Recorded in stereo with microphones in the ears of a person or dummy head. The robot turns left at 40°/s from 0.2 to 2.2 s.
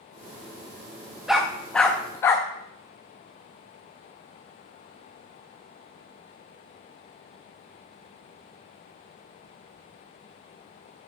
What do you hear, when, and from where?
1.3 s a dog barking: centre (ahead or behind), 0.7 m; by 2.5 s 10° left (ahead or behind), 0.7 m